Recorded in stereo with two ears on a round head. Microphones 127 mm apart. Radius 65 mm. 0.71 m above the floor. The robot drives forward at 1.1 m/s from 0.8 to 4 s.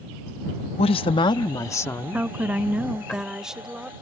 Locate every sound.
0.8 s a woman speaking: 40° left (ahead or behind); by 3.1 s 10° left (ahead or behind)
2.1 s a woman speaking: 10° right (ahead or behind); by 3.9 s 5° right (ahead or behind)